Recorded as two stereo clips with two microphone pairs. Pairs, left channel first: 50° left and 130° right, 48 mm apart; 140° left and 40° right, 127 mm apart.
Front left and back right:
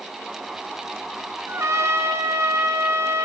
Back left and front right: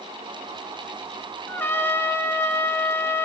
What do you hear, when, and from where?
1.5 s a trumpet: 150° right, 2.5 m